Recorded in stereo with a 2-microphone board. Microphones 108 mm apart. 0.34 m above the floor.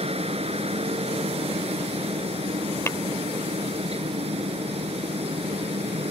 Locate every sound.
0.0 s a helicopter: 65° right (ahead or behind)
2.9 s tapping: 25° left (ahead or behind)